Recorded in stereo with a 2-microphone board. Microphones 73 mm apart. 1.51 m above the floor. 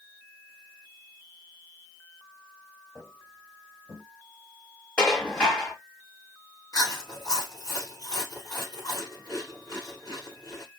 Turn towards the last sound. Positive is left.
turn(degrees=55)  # may be behind; listen again after turning